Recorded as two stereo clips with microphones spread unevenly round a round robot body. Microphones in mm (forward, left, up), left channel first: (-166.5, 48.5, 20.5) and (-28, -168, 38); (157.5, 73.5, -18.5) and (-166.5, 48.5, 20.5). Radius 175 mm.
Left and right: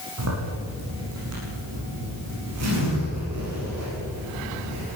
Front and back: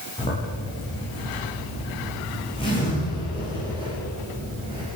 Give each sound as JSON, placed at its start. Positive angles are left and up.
{"t": 0.2, "sound": "a zipper", "azimuth_deg": -75, "distance_m": 9.5}